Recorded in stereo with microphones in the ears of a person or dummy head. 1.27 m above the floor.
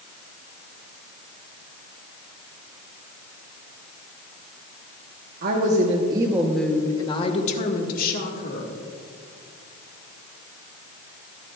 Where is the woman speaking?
50° right (ahead or behind), 1.2 m; by 8.7 s 60° left (ahead or behind), 2 m.